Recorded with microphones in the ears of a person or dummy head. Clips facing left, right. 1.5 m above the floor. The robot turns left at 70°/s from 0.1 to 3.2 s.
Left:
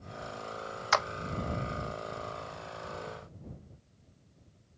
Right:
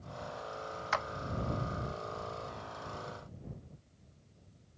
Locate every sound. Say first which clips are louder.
0.9 s a clap: left 6 dB; 55° left (ahead or behind); by 1.1 s 65° left (ahead or behind)